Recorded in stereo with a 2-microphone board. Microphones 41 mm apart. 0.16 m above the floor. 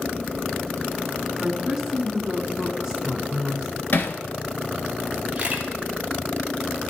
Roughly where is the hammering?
Left.